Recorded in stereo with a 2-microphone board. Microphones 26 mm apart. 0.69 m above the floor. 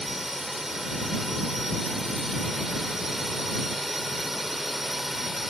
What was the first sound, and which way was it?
A drone, 10° right (ahead or behind).